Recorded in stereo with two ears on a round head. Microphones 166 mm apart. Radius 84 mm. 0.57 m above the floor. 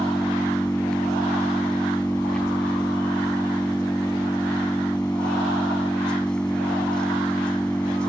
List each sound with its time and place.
0.0 s an engine running: 5° left (ahead or behind)